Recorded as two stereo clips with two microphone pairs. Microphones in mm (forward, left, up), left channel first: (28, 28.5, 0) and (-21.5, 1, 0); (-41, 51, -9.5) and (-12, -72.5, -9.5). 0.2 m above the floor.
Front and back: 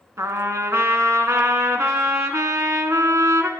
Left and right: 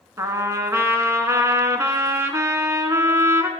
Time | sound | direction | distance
0.2 | a trumpet | 140° right | 0.7 m